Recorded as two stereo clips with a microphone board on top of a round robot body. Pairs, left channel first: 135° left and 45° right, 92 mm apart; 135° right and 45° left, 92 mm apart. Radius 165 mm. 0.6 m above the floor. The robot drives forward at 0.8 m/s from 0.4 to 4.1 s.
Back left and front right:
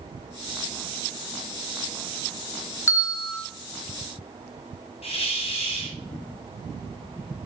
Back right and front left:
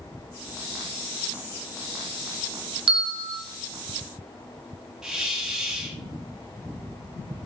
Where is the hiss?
130° left, 2.5 m.